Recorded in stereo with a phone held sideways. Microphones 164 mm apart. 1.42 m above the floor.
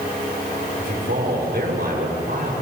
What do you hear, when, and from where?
0.8 s a man speaking: 80° right, 6.5 m